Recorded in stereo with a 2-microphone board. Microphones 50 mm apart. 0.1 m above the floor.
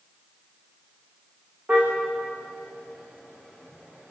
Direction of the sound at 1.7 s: 40° right (ahead or behind).